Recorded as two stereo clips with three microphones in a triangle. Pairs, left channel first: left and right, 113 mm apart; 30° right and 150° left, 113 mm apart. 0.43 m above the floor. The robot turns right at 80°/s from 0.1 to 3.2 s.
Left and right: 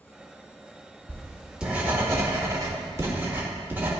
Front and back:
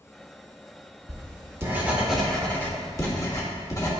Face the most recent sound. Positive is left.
turn(degrees=-40)